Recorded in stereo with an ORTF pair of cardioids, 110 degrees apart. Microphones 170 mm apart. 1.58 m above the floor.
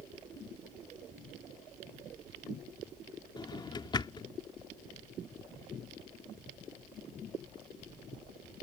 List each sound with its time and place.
3.4 s a drawer: 30° left